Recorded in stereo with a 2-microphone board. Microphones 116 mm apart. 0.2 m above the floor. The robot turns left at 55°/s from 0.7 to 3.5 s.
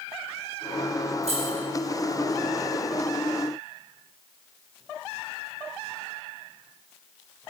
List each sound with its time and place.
1.2 s keys jangling: 70° right (ahead or behind), 3 m; by 1.6 s 60° right (ahead or behind), 3 m